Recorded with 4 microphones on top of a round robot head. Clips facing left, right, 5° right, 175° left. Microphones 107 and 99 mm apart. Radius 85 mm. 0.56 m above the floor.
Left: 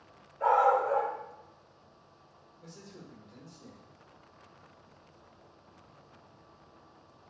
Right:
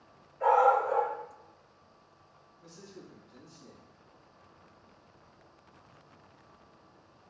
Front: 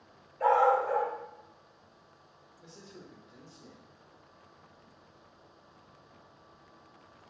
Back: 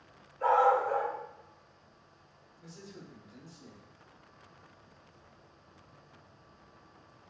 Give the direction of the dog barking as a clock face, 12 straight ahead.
12 o'clock.